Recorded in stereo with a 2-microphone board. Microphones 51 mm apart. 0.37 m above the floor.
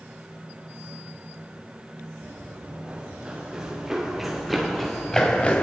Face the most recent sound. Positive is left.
turn(degrees=20)  # may be behind; listen again after turning